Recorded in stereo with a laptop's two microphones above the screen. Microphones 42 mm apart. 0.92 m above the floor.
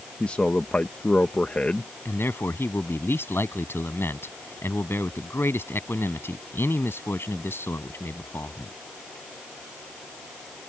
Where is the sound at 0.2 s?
30° left (ahead or behind).